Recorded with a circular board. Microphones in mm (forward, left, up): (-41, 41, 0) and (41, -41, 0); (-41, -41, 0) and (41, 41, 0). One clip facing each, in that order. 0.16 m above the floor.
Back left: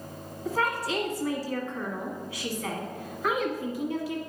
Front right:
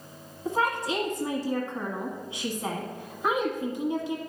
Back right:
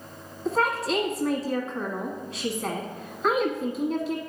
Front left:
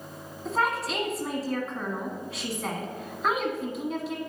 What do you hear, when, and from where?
0.5 s a woman speaking: 45° right, 1.2 m